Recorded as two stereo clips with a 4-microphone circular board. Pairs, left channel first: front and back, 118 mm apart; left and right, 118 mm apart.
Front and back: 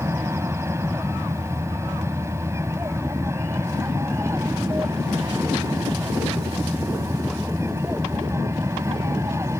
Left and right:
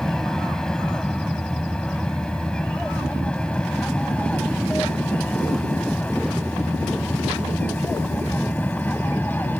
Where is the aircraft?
170° left; by 9.6 s 150° left.